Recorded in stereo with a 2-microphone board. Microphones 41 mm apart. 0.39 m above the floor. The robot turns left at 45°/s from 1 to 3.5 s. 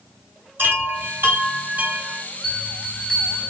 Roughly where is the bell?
Centre.